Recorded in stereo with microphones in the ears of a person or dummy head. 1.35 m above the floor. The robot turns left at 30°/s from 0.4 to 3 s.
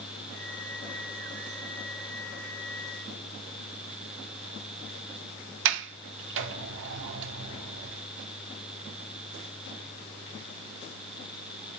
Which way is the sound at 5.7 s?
65° right (ahead or behind).